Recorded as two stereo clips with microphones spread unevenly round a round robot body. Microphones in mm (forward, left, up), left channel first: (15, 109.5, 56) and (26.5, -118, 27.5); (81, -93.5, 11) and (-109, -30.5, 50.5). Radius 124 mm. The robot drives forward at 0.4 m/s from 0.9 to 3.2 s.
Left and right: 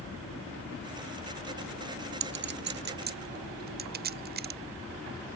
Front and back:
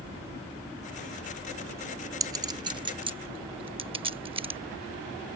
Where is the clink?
125° right; by 4.6 s 135° right.